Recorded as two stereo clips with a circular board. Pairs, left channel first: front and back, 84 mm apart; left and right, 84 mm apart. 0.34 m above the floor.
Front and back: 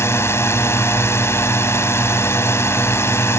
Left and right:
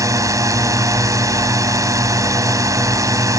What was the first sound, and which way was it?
A drone, 50° right.